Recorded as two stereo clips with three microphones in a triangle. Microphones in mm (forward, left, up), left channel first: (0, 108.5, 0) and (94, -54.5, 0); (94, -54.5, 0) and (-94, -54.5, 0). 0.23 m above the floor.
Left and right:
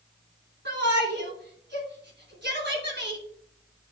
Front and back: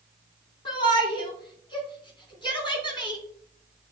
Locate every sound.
0.7 s a shout: 65° right, 3 m